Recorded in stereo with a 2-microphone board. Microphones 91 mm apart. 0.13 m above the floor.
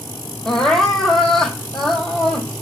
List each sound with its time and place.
0.5 s crying: 5° left (ahead or behind), 0.9 m